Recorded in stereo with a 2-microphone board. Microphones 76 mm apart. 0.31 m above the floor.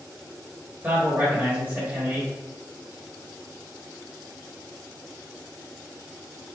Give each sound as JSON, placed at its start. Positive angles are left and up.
{"t": 0.8, "sound": "a man speaking", "side_deg": -25, "distance_m": 1.4}